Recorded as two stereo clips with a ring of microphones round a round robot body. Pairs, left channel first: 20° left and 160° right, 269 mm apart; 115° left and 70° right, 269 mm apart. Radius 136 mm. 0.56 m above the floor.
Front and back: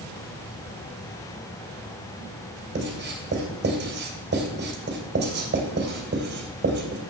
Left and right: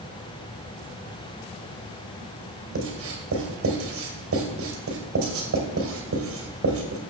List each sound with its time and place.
2.8 s writing: 105° right, 2.5 m